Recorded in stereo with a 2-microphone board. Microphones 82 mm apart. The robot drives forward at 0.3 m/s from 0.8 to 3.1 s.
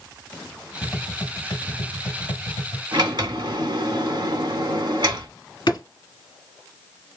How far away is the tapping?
About 0.7 m.